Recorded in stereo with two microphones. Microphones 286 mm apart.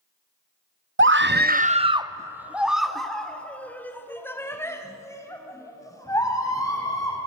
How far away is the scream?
About 0.6 m.